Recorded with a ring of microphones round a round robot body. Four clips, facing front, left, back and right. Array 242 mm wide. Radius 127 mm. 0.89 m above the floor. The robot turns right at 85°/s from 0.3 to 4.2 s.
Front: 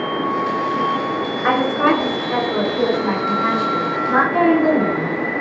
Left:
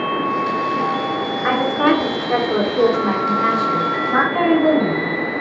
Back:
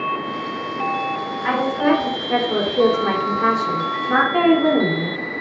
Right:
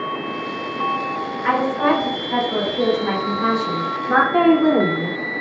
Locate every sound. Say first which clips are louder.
1.4 s a woman speaking: left 1 dB, front 2 dB; 25° left, 3 m; by 5.2 s 100° right, 3 m